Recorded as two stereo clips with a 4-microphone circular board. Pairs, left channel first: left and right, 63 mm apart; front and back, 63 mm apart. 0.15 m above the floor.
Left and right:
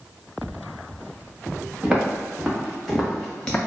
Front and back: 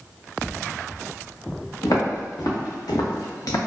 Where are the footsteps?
15° right, 1.6 m; by 3.6 s 20° left, 0.7 m.